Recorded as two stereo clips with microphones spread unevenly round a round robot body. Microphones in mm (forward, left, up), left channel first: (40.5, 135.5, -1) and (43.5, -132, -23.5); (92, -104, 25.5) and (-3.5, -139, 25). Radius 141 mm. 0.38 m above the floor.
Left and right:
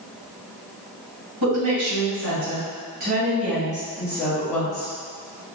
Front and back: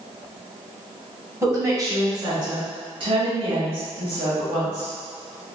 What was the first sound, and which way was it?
A woman speaking, 100° right.